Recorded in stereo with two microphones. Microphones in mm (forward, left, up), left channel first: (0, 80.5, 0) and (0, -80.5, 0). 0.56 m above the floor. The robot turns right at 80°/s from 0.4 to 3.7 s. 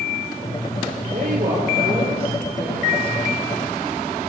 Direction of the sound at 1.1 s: 135° right.